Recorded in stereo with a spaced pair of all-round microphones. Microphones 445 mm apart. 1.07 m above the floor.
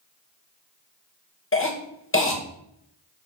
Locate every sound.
1.5 s a cough: 30° left (ahead or behind), 1.1 m